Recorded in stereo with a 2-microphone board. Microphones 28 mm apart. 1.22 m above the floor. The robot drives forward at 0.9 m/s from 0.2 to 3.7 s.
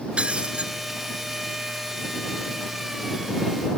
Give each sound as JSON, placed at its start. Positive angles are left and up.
{"t": 0.2, "sound": "breaking glass", "side_deg": -40}